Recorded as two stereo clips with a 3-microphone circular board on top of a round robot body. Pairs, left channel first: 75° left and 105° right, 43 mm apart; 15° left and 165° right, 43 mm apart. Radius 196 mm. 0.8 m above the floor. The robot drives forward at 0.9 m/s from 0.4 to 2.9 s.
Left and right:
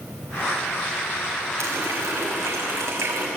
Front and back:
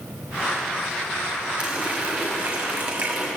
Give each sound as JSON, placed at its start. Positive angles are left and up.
{"t": 1.6, "sound": "a running tap", "azimuth_deg": -95, "distance_m": 5.0}